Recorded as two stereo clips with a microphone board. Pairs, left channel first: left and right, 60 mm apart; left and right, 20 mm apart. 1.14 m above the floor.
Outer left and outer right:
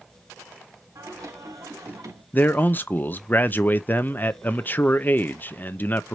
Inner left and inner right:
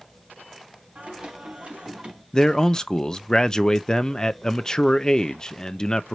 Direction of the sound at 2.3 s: 35° left (ahead or behind).